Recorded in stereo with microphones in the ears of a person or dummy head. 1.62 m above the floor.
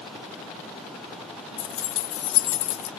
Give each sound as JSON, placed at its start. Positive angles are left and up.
{"t": 1.6, "sound": "keys jangling", "side_deg": 30, "distance_m": 1.1}